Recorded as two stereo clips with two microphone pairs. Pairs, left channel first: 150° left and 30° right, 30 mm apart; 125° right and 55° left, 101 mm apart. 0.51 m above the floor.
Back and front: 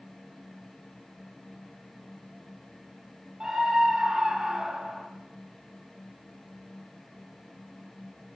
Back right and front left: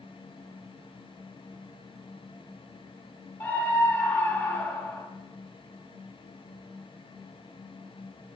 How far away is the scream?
About 1.3 m.